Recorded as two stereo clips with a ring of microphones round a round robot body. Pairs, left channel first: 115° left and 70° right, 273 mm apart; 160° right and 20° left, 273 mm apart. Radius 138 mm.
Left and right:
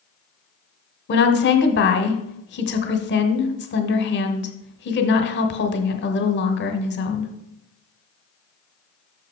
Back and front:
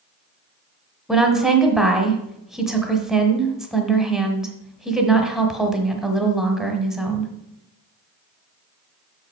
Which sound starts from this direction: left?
A woman speaking, at 1.1 s.